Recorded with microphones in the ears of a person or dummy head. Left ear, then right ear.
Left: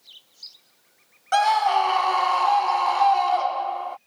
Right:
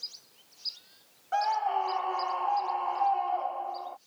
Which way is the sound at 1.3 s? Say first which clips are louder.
Left 9 dB; 60° left (ahead or behind).